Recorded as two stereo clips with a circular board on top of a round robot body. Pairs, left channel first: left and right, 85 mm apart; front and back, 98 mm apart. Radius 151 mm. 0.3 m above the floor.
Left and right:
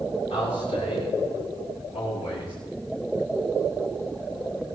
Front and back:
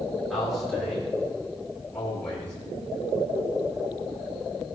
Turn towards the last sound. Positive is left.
turn(degrees=80)